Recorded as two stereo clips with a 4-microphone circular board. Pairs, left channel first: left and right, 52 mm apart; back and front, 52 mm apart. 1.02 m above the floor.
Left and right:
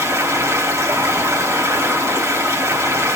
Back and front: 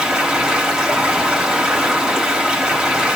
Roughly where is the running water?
Right.